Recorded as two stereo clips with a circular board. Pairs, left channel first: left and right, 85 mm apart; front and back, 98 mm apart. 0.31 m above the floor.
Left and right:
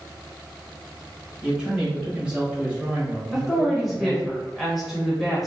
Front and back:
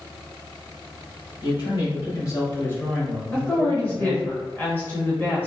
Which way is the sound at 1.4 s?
10° right.